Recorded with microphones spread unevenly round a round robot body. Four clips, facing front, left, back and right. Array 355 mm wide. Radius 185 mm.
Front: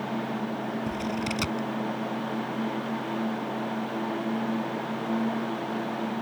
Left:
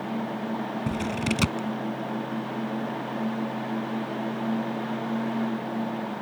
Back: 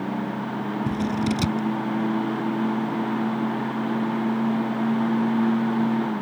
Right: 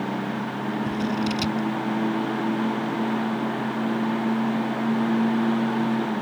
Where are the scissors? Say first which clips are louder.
Right 2 dB, back 6 dB; 150° left.